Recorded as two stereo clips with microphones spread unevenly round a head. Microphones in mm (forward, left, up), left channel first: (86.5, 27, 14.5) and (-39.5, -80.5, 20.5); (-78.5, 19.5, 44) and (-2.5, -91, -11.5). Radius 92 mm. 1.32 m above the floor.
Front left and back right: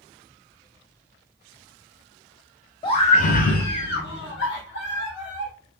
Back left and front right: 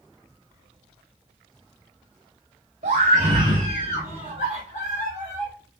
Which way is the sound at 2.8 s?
20° right.